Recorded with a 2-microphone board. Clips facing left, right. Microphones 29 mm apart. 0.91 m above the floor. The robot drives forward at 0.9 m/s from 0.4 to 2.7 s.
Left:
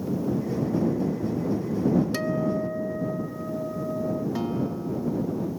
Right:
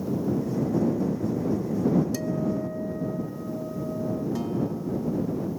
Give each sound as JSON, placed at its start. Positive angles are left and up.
{"t": 2.1, "sound": "a guitar", "side_deg": 45}
{"t": 4.3, "sound": "a guitar", "side_deg": 25}